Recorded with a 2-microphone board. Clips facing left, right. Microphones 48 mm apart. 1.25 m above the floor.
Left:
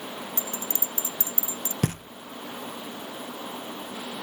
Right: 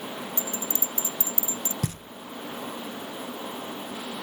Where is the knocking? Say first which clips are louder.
Left 4 dB; 55° left (ahead or behind).